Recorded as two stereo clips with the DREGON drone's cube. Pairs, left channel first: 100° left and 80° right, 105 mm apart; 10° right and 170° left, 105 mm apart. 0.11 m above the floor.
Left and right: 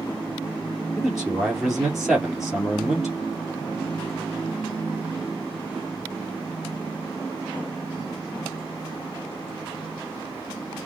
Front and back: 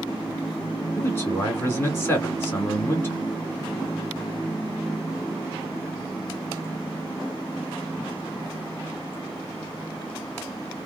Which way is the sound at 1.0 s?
Straight ahead.